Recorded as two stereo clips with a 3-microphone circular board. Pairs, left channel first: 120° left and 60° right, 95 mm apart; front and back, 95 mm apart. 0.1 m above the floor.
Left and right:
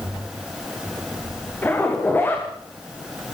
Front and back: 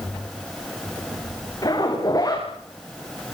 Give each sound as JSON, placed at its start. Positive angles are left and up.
{"t": 1.6, "sound": "a zipper", "azimuth_deg": 50, "distance_m": 7.5}